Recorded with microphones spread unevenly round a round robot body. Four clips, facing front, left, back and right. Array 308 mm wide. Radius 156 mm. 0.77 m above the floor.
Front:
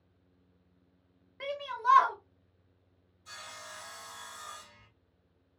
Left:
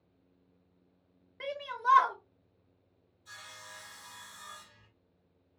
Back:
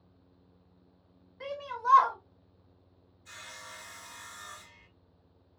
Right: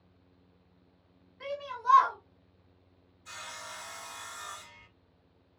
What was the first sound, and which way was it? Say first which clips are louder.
A shout: left 1 dB, front 2 dB; 55° left.